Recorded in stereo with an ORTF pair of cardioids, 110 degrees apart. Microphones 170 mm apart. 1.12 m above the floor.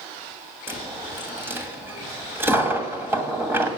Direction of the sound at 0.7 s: 15° right.